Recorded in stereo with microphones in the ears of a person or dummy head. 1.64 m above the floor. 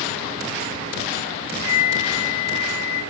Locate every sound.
1.6 s a flute: 70° left (ahead or behind), 8.5 m